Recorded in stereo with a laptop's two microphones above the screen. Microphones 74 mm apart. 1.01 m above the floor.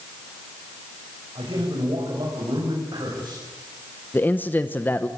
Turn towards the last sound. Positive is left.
turn(degrees=25)  # may be behind; listen again after turning